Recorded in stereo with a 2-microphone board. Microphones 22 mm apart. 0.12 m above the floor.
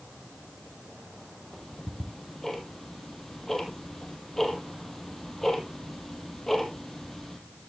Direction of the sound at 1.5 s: 15° left (ahead or behind).